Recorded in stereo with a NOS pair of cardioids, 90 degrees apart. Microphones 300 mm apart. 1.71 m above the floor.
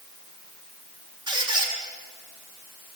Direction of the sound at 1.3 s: 15° right.